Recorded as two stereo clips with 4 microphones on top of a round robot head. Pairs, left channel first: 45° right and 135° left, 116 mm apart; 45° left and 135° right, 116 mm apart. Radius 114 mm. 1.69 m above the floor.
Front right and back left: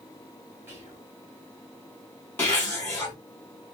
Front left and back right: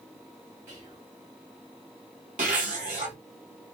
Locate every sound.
0.7 s whispering: 155° right, 1.1 m
2.4 s a zipper: 115° right, 0.9 m